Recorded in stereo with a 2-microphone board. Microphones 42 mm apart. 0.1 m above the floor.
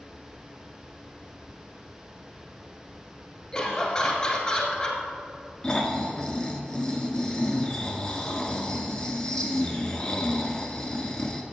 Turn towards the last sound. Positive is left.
turn(degrees=20)  # may be behind; listen again after turning